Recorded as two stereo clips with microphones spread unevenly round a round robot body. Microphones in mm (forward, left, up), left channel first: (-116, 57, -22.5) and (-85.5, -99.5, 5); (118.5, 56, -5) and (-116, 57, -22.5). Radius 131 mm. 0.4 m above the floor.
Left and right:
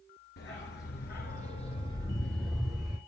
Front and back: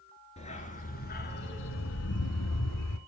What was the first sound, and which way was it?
A dog barking, 60° left.